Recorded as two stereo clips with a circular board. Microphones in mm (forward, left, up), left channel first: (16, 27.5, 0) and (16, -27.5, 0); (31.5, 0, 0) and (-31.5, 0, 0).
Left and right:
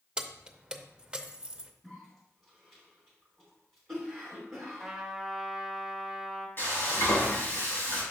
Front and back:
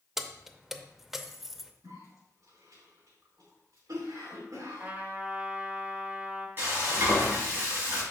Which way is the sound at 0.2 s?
110° right.